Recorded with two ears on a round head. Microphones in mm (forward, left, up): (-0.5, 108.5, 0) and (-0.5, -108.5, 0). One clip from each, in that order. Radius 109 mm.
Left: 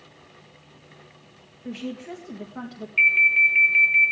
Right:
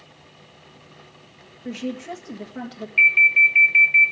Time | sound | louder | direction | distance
1.6 | a woman speaking | right 4 dB | 5° right (ahead or behind) | 1.9 m
3.0 | an alarm | right 3 dB | 5° left (ahead or behind) | 3 m